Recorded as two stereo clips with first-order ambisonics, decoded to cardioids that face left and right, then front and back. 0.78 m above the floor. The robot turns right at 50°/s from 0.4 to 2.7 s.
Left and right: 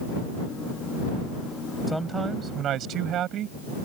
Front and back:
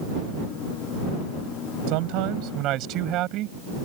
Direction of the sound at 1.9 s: Straight behind.